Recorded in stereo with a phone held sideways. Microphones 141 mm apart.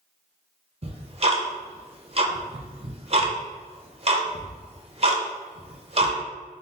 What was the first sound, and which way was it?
Ticking, 45° right (ahead or behind).